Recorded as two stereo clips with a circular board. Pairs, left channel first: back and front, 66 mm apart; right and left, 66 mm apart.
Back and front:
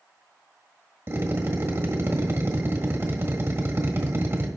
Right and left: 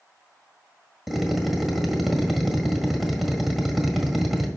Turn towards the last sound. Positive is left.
turn(degrees=5)